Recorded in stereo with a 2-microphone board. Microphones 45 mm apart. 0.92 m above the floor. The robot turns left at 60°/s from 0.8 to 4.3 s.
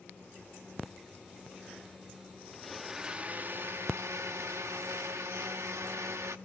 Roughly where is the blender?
Ahead.